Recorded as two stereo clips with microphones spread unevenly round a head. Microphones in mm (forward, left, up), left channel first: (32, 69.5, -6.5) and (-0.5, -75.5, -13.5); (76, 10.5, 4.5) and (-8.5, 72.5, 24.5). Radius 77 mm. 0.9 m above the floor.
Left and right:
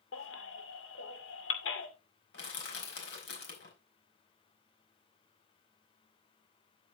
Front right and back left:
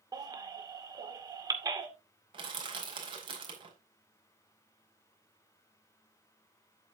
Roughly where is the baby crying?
Left.